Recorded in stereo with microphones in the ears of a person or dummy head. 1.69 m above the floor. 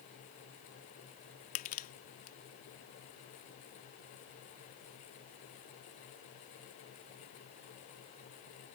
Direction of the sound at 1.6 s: 45° left (ahead or behind).